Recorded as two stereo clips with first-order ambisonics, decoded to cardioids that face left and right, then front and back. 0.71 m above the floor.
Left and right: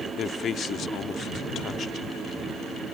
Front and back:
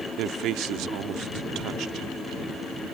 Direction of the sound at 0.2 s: 145° left.